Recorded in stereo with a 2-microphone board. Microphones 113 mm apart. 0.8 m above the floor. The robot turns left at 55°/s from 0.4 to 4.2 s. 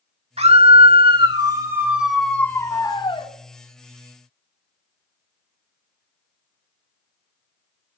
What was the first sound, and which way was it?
A scream, 85° right.